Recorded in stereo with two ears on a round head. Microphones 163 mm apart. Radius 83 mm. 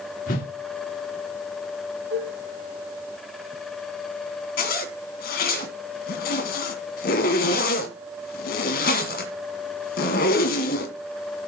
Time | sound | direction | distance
0.3 | a whoosh | 50° left (ahead or behind) | 2 m
2.1 | dishes clattering | 85° right | 9 m
4.6 | a zipper | 55° left (ahead or behind) | 2.5 m